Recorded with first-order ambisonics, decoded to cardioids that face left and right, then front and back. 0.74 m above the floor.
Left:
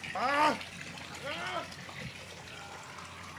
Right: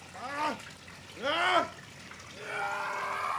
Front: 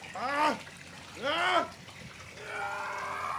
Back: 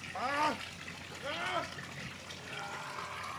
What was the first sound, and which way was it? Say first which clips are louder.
A scream: left 6 dB, front 4 dB; 80° left.